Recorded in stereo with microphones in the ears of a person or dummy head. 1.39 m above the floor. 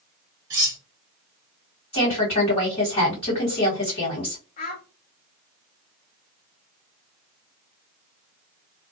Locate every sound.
0.5 s cutlery clinking: 20° right (ahead or behind), 0.6 m
1.9 s a woman speaking: 30° left (ahead or behind), 1.5 m
4.6 s a child speaking: 45° left (ahead or behind), 1.0 m